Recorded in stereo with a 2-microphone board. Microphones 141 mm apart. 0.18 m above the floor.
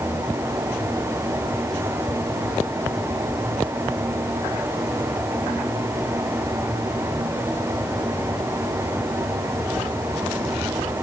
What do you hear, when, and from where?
Only background noise.